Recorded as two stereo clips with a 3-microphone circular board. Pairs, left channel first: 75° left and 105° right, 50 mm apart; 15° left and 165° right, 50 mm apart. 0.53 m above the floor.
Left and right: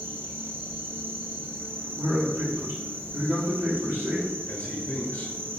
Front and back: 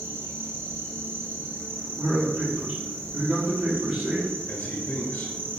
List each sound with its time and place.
0.0 s an insect: 140° right, 1.0 m
2.0 s a man speaking: 105° right, 1.4 m
4.5 s a man speaking: 40° left, 0.8 m